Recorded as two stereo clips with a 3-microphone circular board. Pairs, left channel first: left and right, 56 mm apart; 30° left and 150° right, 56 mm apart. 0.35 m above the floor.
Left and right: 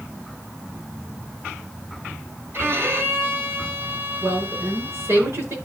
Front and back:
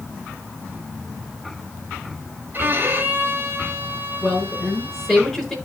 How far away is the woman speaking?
About 5 m.